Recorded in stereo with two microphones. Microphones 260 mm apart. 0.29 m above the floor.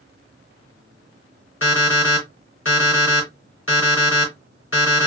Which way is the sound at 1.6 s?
55° left (ahead or behind).